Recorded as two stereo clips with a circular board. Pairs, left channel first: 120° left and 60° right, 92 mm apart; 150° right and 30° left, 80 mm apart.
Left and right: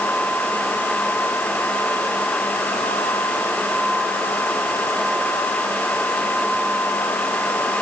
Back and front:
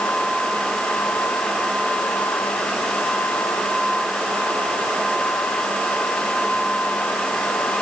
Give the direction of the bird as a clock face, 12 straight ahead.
No bird in this recording.